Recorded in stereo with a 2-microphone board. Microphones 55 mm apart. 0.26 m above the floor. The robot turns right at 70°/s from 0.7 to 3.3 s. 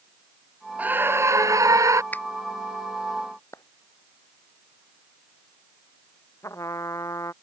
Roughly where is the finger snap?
Left.